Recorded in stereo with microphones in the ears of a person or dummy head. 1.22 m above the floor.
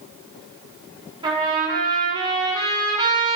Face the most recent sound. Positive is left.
turn(degrees=-30)  # may be behind; listen again after turning